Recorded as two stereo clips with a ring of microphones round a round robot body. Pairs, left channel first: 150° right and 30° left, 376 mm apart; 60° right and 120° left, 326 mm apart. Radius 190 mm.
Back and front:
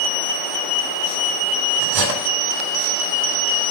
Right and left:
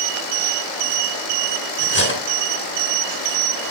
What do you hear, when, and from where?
1.8 s cutlery clinking: 5° right, 2 m